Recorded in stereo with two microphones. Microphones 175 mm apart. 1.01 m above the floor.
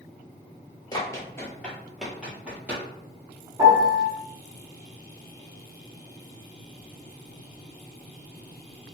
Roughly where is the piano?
Centre.